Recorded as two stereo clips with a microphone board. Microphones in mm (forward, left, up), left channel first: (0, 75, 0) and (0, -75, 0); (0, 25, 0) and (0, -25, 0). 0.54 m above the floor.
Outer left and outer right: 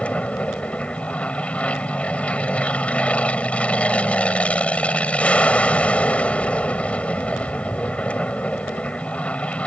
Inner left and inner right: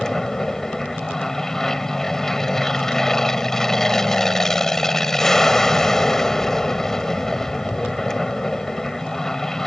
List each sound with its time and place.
0.0 s an aircraft: 10° left (ahead or behind)